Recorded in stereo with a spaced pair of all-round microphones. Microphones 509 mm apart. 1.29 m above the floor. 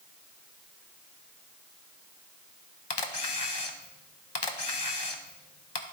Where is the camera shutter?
50° left (ahead or behind), 0.9 m.